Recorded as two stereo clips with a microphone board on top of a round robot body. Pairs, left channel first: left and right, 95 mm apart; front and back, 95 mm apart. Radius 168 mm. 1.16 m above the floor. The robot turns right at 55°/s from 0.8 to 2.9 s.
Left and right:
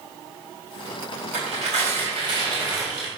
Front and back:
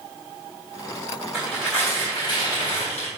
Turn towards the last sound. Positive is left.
turn(degrees=-15)